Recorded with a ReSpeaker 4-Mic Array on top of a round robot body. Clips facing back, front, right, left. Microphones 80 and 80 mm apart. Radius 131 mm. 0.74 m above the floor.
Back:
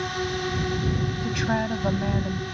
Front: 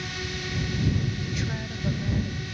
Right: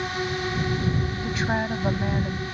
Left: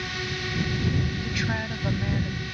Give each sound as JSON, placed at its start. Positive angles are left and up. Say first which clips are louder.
{"t": 0.0, "sound": "a drone", "louder": "back 7 dB, right 5 dB", "azimuth_deg": -145}
{"t": 1.2, "sound": "a woman speaking", "louder": "back 8 dB, right 4 dB", "azimuth_deg": -150}